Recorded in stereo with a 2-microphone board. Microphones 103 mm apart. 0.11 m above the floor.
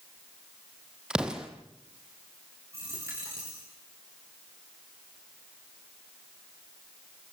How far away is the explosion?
About 2.5 m.